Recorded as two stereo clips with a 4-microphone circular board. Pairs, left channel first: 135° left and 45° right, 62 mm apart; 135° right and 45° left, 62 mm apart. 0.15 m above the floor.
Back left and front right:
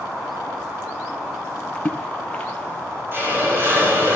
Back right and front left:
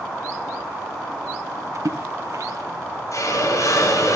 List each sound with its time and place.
1.8 s a splash: 65° left, 1.8 m
3.1 s a hiss: 100° right, 3.5 m